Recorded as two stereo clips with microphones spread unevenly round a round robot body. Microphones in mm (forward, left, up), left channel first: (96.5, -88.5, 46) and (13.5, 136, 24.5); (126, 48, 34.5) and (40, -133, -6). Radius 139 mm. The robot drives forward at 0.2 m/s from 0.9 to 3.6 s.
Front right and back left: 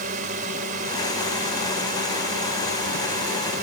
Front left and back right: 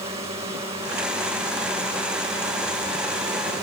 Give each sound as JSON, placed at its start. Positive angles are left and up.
{"t": 0.0, "sound": "a drone", "azimuth_deg": 170}